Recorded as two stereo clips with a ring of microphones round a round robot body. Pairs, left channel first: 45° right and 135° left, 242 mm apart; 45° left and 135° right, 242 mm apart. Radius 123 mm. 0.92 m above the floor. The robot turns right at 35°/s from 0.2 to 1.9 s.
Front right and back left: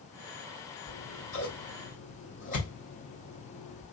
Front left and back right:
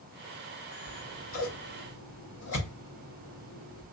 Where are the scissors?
25° right, 1.5 m; by 3.8 s 10° left, 1.5 m.